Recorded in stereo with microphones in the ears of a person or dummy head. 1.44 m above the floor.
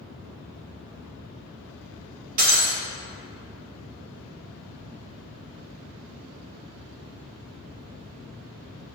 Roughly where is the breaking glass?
Right.